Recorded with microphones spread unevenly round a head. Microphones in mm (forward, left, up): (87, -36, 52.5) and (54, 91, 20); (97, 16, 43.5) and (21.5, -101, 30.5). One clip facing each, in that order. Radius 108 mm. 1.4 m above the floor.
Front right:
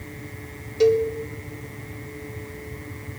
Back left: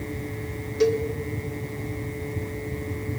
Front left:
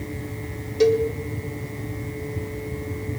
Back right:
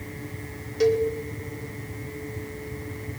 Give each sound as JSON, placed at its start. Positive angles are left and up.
{"t": 0.8, "sound": "a cowbell", "azimuth_deg": -5, "distance_m": 2.0}